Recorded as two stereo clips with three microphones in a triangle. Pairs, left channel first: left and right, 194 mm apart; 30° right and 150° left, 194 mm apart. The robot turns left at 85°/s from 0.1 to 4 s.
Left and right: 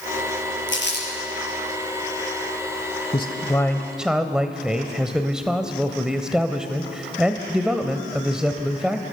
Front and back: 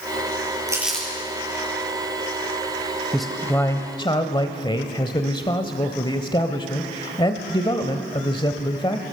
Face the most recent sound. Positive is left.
turn(degrees=-10)